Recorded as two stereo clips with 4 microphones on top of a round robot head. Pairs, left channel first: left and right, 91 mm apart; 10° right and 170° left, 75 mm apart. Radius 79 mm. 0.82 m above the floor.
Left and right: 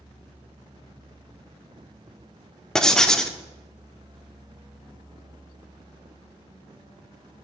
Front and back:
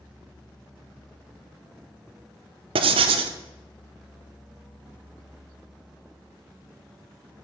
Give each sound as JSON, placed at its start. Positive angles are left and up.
{"t": 2.8, "sound": "writing", "azimuth_deg": 175, "distance_m": 0.8}